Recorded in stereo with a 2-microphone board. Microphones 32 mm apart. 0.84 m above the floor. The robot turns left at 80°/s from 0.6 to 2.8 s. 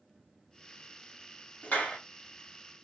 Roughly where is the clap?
Left.